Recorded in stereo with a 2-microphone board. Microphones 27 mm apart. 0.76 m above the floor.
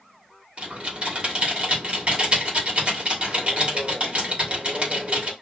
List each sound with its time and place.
0.6 s typing on a keyboard: 45° right (ahead or behind), 1.3 m